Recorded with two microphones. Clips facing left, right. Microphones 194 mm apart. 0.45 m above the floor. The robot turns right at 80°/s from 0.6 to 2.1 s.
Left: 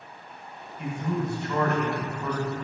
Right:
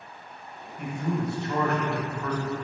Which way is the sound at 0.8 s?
90° right.